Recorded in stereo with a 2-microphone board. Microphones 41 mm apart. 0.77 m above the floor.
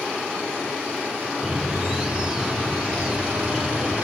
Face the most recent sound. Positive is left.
turn(degrees=-20)  # may be behind; listen again after turning